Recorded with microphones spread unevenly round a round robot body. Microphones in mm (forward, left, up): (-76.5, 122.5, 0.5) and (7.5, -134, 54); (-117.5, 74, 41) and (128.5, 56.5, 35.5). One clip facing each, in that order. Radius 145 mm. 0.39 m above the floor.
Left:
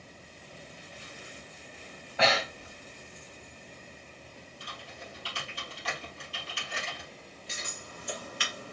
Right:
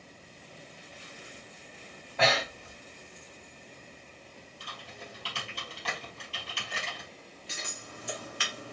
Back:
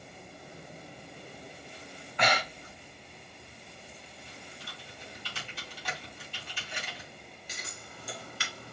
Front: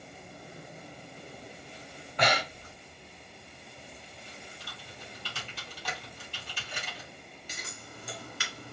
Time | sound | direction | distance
2.2 | breathing | 35° left | 0.9 m
4.6 | typing on a keyboard | 30° right | 3.5 m
7.5 | scissors | 30° right | 2 m